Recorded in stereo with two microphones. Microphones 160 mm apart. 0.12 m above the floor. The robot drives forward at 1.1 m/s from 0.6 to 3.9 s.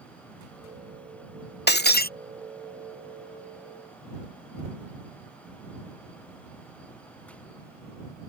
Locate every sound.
1.7 s breaking glass: 85° left; by 2.1 s 65° left (ahead or behind)